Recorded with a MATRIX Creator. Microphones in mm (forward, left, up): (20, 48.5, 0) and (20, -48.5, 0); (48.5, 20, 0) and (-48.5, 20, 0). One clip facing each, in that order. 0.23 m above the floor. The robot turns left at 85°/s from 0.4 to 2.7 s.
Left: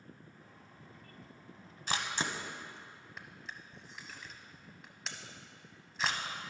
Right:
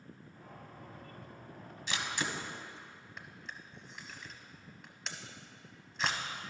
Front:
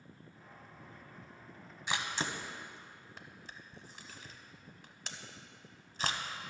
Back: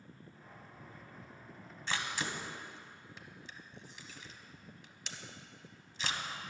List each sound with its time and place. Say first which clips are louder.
1.9 s a camera shutter: left 1 dB, front 1 dB; 70° left, 0.8 m; by 6.2 s straight ahead, 0.8 m